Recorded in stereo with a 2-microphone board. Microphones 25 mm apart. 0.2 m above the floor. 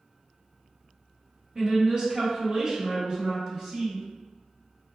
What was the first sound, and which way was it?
A woman speaking, 35° right (ahead or behind).